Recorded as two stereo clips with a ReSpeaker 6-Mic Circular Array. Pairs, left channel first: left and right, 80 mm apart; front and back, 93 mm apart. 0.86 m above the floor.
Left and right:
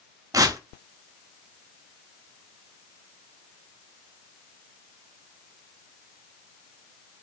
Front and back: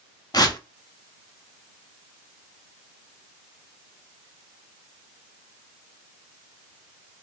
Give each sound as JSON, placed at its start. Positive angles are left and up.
{"t": 0.3, "sound": "tearing paper", "azimuth_deg": -45, "distance_m": 0.6}